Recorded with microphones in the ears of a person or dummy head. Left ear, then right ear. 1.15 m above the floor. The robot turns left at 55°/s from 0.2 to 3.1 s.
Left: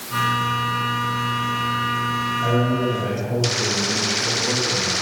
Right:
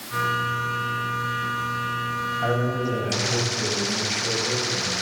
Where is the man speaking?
140° right, 6.5 m; by 4.9 s 175° right, 6.5 m.